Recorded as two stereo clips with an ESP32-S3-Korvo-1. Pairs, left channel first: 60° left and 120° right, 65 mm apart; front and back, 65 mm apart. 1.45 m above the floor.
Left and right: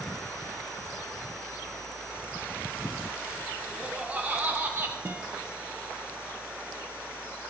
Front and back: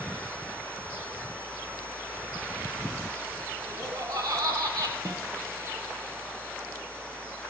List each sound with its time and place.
3.7 s laughter: 170° left, 3 m; by 5.0 s 170° right, 1.9 m
5.0 s a guitar: 175° right, 1.3 m